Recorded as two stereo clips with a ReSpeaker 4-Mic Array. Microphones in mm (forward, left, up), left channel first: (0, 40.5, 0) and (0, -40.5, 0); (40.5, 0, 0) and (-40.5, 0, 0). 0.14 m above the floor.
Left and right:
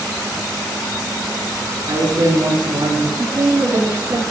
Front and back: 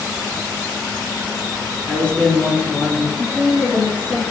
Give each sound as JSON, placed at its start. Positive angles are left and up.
{"t": 1.9, "sound": "a man speaking", "azimuth_deg": -70, "distance_m": 3.5}
{"t": 3.2, "sound": "a woman speaking", "azimuth_deg": -100, "distance_m": 5.0}